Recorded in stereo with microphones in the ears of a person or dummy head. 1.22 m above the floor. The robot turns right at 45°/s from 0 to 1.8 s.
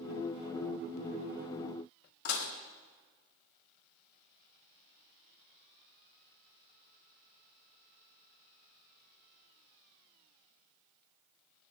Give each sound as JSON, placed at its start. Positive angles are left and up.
{"t": 2.2, "sound": "dishes clattering", "side_deg": 75, "distance_m": 1.5}